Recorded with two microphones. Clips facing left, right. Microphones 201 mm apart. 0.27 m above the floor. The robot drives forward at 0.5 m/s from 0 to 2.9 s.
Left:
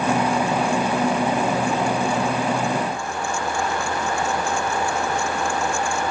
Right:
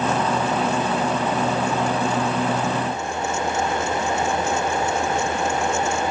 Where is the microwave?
I don't hear a microwave.